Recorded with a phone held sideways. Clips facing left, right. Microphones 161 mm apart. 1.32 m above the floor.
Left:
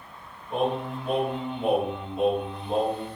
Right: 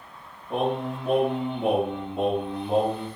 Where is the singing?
55° right (ahead or behind), 1.8 m.